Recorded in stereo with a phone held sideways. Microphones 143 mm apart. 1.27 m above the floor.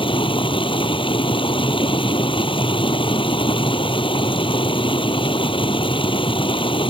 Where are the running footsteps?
I don't hear running footsteps.